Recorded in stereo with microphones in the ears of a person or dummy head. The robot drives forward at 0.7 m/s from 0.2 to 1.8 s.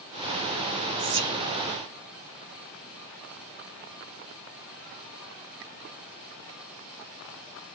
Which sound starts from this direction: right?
Whispering, at 1.0 s.